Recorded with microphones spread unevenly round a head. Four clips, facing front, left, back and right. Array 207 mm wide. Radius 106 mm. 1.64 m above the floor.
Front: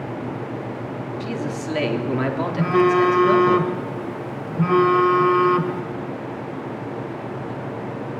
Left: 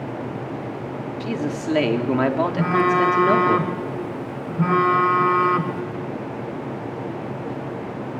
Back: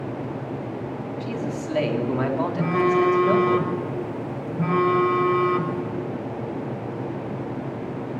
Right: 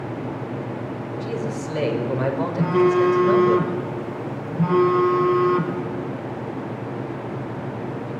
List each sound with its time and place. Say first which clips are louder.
1.2 s a man speaking: left 3 dB, front 1 dB; 70° left, 4.5 m
2.6 s a phone buzzing: right 3 dB, front 4 dB; 50° left, 3 m